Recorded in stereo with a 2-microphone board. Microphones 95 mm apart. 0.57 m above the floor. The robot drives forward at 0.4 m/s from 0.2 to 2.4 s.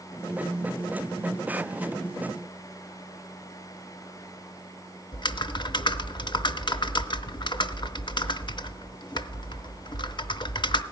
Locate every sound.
5.1 s typing on a keyboard: 50° left (ahead or behind), 0.5 m